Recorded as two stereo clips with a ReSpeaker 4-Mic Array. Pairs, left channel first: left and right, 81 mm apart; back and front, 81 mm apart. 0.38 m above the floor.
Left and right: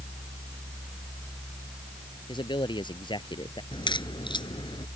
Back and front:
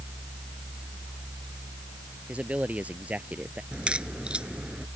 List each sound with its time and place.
2.3 s a man speaking: 75° left
3.7 s a crack: 75° left